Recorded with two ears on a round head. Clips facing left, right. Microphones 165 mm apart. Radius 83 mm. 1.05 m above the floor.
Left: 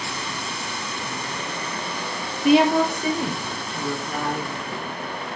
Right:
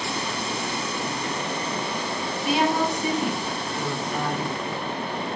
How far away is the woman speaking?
About 0.8 m.